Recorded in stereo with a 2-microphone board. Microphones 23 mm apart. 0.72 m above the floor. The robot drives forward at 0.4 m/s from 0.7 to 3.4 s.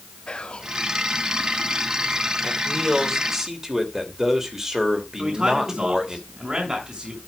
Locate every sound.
0.3 s whispering: 50° left (ahead or behind), 1.2 m
2.4 s a man speaking: 25° right (ahead or behind), 2.5 m; by 6.2 s 20° right (ahead or behind), 3 m
5.2 s a man speaking: 35° right (ahead or behind), 6 m